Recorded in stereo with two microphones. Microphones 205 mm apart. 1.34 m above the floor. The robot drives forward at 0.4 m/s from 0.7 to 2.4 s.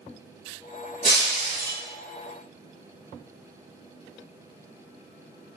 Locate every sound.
1.0 s breaking glass: 60° right (ahead or behind), 2.0 m; by 1.8 s 55° right (ahead or behind), 2 m